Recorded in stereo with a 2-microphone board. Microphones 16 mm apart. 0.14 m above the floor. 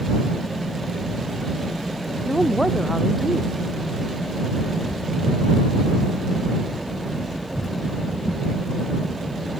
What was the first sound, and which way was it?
A woman speaking, 10° left (ahead or behind).